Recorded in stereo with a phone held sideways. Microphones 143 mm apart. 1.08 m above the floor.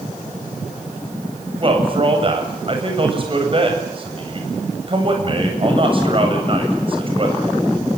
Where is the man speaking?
40° right (ahead or behind), 7.5 m.